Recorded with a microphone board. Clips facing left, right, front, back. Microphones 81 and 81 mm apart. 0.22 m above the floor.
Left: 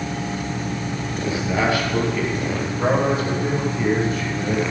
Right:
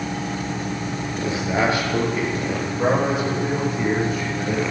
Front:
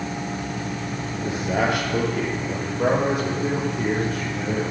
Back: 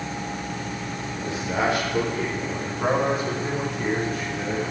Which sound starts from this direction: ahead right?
A man speaking, at 1.2 s.